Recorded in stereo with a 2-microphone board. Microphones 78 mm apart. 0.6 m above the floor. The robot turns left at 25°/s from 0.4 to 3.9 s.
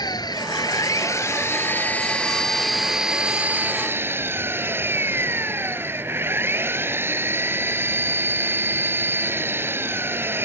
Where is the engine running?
60° left; by 10.5 s 30° right.